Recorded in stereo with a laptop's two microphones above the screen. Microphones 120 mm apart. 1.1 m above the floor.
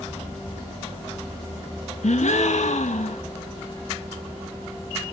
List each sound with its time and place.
2.0 s a gasp: 75° left (ahead or behind), 1.3 m